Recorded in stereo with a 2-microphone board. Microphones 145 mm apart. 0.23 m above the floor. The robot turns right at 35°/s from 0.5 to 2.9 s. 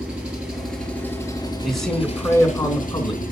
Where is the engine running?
5° right, 3 m; by 3.3 s 80° left, 3 m.